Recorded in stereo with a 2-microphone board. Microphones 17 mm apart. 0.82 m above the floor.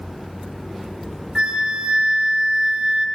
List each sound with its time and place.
1.4 s a flute: 65° right (ahead or behind), 1.0 m